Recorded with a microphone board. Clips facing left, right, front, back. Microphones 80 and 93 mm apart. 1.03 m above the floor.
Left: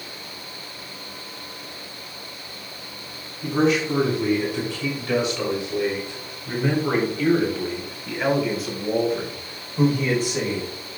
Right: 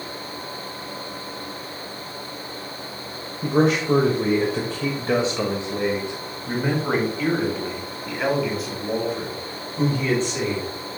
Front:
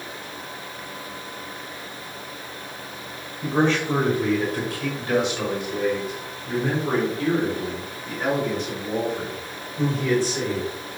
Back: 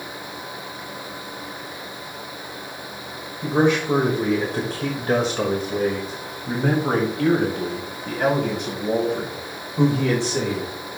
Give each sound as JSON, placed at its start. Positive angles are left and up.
{"t": 3.4, "sound": "a man speaking", "azimuth_deg": -100, "distance_m": 1.6}